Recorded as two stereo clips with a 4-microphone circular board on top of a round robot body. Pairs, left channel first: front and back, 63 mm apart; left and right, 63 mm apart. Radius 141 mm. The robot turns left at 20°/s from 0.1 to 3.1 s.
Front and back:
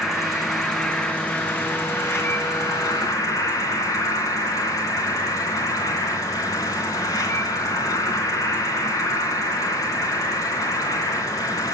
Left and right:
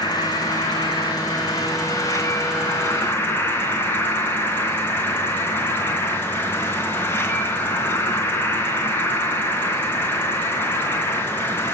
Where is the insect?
95° left, 3 m; by 11.8 s 35° left, 3 m.